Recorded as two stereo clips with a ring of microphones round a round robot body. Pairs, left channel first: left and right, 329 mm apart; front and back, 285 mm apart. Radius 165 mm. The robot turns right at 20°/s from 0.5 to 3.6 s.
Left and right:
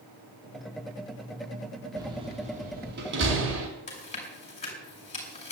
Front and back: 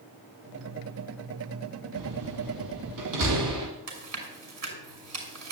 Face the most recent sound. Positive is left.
turn(degrees=160)